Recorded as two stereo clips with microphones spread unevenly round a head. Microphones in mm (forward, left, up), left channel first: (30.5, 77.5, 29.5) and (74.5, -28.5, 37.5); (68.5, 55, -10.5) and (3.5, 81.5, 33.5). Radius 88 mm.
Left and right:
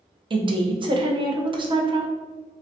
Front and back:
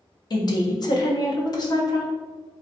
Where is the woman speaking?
20° right, 0.6 m.